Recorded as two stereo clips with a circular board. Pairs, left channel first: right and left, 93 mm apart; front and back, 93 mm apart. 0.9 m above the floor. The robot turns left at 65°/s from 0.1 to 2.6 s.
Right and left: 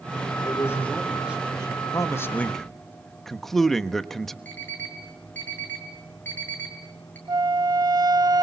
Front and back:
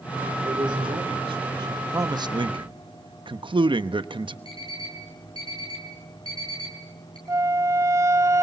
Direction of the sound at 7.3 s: 125° left.